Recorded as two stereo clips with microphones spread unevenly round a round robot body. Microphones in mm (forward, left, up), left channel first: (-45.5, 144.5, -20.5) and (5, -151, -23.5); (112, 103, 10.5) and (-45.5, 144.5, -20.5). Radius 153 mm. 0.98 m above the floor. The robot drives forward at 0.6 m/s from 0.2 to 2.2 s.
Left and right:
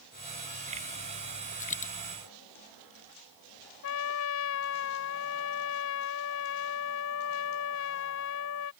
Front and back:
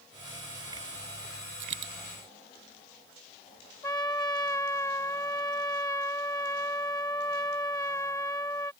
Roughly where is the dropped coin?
Behind.